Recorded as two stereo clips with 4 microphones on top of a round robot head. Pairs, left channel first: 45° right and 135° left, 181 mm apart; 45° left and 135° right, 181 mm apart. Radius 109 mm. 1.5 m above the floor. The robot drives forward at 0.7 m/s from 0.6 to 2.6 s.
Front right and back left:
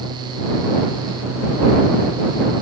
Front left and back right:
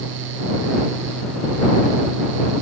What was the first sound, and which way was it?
Only background noise.